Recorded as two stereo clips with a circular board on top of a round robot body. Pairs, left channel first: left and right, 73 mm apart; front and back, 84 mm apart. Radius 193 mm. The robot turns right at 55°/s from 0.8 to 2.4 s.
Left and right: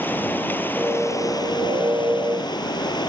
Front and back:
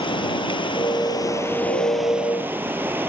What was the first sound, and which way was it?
Running water, 25° left.